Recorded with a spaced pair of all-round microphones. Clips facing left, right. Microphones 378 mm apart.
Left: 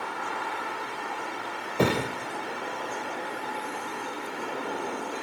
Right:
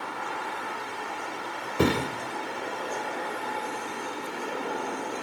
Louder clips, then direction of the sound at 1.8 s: Right 1 dB; 25° right (ahead or behind).